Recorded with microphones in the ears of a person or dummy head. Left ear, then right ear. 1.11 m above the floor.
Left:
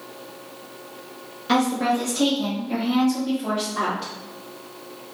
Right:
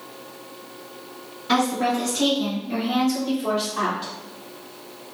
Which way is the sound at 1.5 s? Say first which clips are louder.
Even; 20° left (ahead or behind).